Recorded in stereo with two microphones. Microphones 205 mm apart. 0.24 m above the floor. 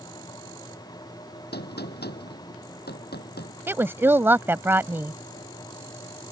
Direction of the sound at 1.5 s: 50° left (ahead or behind).